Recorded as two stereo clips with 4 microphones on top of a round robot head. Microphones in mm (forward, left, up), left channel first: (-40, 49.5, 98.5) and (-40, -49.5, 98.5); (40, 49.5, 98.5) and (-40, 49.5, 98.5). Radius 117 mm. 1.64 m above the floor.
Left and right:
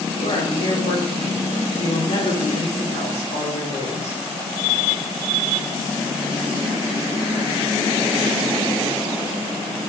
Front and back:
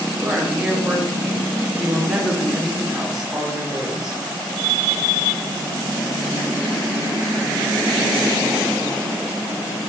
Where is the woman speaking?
100° left, 5 m.